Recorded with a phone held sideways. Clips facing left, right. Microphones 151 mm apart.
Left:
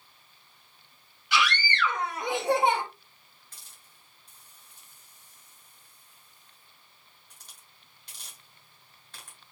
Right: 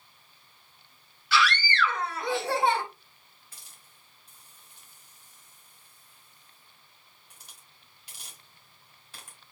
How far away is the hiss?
About 2.5 m.